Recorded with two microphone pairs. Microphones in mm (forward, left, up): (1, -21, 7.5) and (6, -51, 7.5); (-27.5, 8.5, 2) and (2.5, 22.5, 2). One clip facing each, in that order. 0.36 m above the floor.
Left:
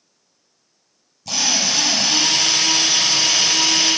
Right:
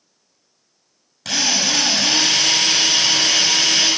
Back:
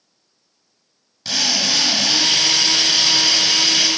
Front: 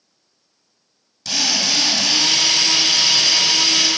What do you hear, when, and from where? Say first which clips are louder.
1.2 s a drill: right 1 dB, even; 85° right, 5.5 m